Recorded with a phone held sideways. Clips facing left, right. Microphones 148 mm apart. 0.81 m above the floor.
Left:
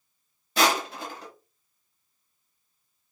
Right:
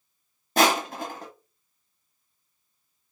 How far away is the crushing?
About 0.8 m.